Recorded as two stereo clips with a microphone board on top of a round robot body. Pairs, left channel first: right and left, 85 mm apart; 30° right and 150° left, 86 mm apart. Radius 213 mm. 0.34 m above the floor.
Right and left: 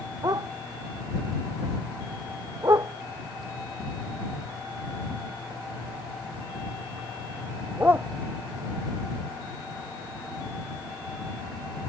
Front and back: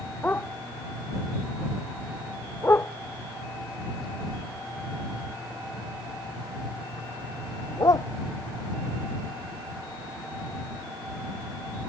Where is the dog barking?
40° left; by 8.1 s 20° left.